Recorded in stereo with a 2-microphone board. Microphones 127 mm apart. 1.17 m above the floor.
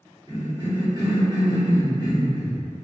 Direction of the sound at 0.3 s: 35° right (ahead or behind).